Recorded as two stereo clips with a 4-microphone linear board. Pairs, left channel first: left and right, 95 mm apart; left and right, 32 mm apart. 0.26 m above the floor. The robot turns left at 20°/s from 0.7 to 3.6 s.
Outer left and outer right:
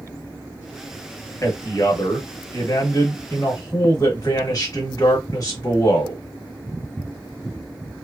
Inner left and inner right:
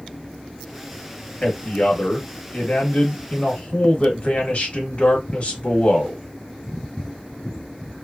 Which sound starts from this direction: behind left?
A man speaking, at 1.4 s.